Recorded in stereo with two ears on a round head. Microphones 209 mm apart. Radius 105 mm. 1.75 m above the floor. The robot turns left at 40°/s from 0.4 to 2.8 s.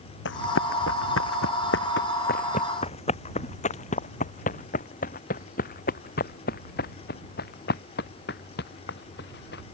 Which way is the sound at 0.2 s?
60° left (ahead or behind).